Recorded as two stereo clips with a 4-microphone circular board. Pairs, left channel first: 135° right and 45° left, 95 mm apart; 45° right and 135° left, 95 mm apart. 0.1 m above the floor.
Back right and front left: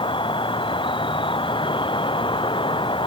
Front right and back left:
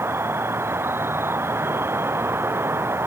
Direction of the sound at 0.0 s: 160° right.